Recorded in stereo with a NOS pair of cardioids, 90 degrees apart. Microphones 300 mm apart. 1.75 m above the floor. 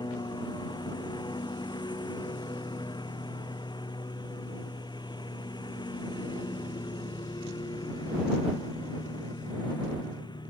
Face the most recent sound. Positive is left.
turn(degrees=15)